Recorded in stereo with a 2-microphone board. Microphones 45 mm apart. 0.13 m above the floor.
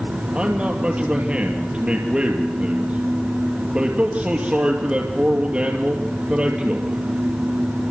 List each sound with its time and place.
0.3 s a man speaking: 25° right (ahead or behind), 2.5 m